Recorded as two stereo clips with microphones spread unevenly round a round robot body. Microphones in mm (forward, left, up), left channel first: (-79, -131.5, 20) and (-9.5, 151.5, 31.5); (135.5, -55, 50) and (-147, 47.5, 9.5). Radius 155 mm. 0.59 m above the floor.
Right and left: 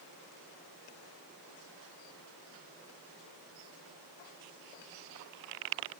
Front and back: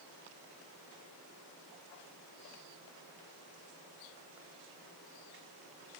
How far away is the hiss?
I don't hear a hiss.